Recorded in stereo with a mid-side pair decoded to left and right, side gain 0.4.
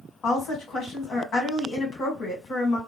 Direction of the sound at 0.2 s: 65° left.